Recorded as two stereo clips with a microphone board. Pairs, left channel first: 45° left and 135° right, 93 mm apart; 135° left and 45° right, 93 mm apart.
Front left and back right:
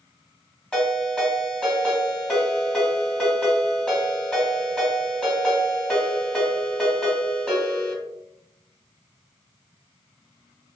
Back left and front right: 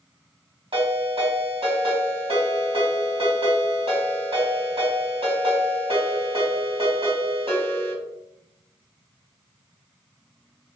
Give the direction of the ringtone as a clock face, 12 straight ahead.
1 o'clock.